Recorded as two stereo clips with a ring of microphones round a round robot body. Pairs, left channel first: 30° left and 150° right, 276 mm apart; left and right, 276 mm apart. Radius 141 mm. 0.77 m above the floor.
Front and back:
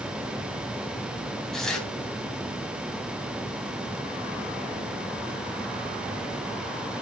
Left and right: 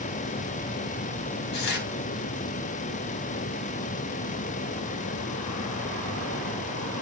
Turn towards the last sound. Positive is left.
turn(degrees=120)